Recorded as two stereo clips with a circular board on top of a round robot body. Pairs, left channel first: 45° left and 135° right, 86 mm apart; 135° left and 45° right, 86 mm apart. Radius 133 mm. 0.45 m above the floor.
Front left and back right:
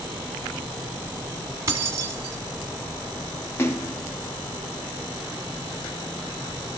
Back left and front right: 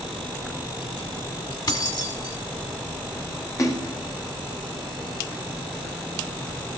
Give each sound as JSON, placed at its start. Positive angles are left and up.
{"t": 1.7, "sound": "keys jangling", "azimuth_deg": 170, "distance_m": 1.5}
{"t": 3.6, "sound": "a splash", "azimuth_deg": 100, "distance_m": 1.8}